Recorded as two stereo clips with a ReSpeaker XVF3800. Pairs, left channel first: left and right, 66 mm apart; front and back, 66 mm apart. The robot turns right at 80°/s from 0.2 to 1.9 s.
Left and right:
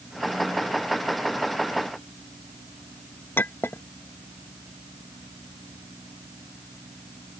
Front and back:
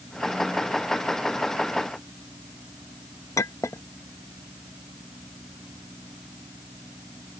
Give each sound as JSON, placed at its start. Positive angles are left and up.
{"t": 3.4, "sound": "a clink", "azimuth_deg": 35}